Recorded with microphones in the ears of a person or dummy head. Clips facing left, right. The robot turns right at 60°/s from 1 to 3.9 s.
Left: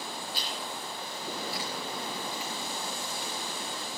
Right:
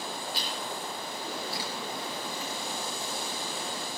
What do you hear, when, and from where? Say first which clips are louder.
0.3 s chewing: right 2 dB; 65° right (ahead or behind), 6.5 m; by 3.3 s 75° left (ahead or behind), 6.5 m